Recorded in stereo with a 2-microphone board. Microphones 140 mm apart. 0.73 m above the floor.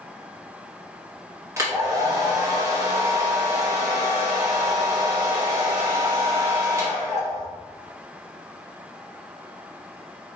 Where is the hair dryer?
20° right (ahead or behind), 1.1 m.